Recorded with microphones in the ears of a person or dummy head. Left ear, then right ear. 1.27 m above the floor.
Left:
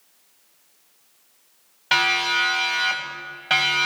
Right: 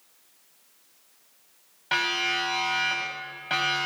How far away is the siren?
About 9.5 m.